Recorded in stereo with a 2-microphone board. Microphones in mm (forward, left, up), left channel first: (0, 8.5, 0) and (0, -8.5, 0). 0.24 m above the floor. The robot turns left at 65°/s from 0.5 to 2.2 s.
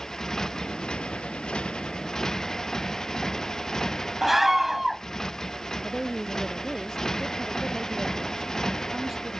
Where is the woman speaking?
25° right (ahead or behind).